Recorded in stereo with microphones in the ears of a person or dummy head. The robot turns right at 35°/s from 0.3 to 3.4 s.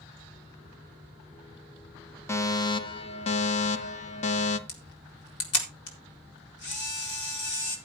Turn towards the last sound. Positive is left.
turn(degrees=65)  # may be behind; listen again after turning